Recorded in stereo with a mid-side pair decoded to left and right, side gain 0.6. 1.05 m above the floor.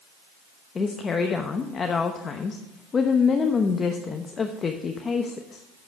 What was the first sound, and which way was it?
A woman speaking, 30° left.